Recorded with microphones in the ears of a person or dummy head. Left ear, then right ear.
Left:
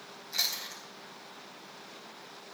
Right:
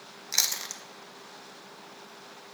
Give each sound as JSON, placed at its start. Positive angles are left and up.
{"t": 0.3, "sound": "chewing", "side_deg": -50, "distance_m": 1.0}